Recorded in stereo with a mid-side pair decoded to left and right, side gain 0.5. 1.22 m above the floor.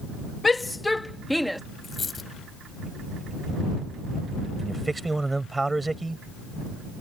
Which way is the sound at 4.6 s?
15° right.